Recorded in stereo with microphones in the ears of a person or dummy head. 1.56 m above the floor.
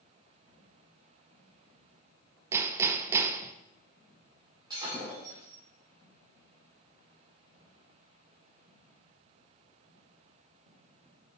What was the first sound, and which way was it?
Hammering, 5° right (ahead or behind).